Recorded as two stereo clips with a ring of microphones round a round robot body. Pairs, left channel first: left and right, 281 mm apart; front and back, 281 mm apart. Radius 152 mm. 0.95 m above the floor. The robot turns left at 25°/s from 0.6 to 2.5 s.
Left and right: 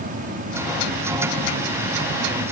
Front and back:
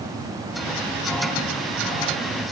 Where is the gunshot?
No gunshot in this recording.